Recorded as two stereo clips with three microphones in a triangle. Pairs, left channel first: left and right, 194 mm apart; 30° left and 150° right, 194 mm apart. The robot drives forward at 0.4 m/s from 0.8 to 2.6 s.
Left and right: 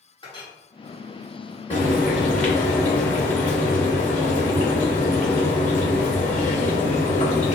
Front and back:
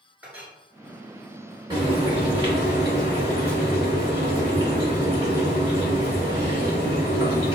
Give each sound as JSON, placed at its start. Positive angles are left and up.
{"t": 0.2, "sound": "a clink", "azimuth_deg": 135, "distance_m": 1.1}
{"t": 1.7, "sound": "frying", "azimuth_deg": 145, "distance_m": 1.8}